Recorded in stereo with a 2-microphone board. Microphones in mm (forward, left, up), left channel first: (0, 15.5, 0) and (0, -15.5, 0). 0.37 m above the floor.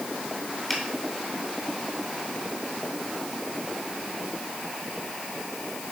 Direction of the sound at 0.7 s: 5° left (ahead or behind).